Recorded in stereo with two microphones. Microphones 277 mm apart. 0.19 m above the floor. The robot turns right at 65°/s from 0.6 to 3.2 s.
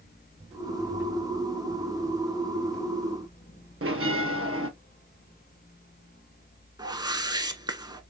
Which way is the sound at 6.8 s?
15° right (ahead or behind).